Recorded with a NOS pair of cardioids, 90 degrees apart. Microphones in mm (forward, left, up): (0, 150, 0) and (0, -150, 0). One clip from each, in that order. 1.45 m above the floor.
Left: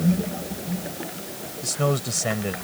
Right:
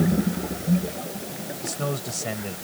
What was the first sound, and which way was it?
A man speaking, 40° left.